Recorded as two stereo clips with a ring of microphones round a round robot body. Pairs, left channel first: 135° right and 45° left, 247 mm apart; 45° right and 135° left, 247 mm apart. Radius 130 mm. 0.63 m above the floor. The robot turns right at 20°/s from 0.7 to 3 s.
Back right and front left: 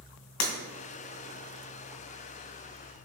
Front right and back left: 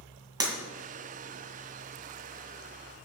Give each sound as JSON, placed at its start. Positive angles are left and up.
{"t": 0.4, "sound": "breaking glass", "azimuth_deg": -150, "distance_m": 2.0}